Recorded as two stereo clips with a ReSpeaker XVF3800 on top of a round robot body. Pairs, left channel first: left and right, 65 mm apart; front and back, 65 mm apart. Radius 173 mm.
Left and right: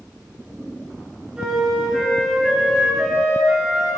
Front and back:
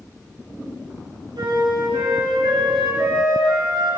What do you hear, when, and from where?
1.4 s a flute: 170° right, 2.5 m